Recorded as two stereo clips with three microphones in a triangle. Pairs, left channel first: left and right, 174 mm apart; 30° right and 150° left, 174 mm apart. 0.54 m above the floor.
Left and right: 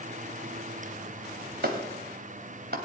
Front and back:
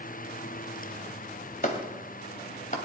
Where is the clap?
70° right, 2 m.